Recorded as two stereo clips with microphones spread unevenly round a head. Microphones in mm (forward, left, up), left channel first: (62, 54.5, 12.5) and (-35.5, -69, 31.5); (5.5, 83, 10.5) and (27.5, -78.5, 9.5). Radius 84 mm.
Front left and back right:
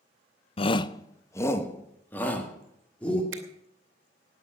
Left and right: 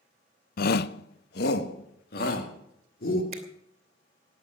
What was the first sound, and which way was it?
A shout, 95° left.